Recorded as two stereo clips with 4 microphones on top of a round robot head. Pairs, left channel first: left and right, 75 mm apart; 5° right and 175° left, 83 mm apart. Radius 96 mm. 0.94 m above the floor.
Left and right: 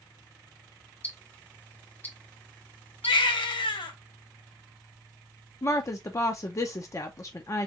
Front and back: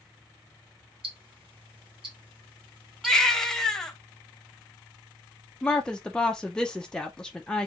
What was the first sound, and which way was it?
Ticking, 155° left.